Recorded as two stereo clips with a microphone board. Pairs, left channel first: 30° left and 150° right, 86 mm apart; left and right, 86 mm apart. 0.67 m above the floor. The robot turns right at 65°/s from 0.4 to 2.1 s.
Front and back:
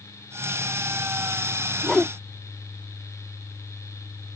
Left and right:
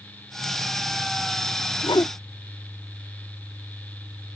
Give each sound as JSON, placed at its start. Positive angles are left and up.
{"t": 1.8, "sound": "a whoosh", "azimuth_deg": 110}